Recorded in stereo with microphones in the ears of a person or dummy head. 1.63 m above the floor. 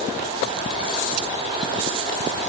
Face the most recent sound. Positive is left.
No sound to turn to.